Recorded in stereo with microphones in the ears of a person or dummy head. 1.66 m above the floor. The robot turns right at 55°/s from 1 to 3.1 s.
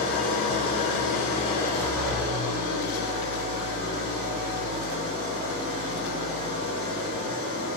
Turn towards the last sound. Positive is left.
turn(degrees=-125)